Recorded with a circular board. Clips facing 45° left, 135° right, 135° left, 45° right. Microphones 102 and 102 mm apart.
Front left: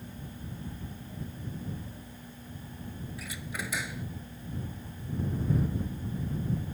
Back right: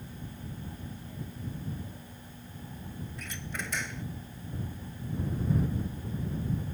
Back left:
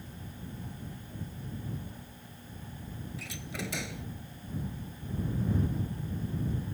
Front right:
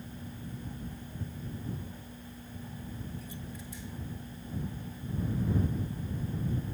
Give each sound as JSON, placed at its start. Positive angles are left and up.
{"t": 3.2, "sound": "a door slam", "azimuth_deg": 130}